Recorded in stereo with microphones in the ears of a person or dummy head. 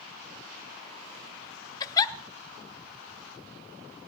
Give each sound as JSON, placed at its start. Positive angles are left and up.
{"t": 1.8, "sound": "a giggle", "side_deg": 25, "distance_m": 0.8}